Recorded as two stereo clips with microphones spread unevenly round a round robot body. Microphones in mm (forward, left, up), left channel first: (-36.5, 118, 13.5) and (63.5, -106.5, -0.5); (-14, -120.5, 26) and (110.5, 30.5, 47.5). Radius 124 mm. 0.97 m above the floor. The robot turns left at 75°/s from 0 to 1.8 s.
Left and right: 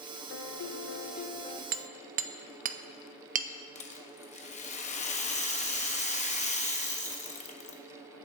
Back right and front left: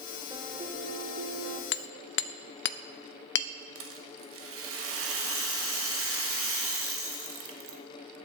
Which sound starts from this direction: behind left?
A piano, at 0.3 s.